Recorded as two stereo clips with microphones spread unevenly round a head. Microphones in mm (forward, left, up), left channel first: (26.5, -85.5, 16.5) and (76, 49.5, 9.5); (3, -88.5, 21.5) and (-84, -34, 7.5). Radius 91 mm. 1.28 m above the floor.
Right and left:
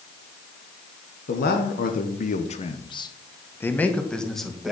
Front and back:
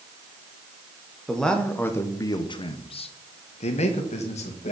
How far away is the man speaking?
About 1.1 m.